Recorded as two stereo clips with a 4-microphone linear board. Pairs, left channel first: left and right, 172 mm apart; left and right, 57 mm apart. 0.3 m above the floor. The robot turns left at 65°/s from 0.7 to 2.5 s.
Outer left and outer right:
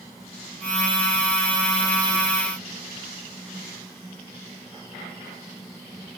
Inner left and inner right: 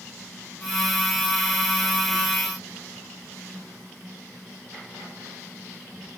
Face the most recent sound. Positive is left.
No sound to turn to.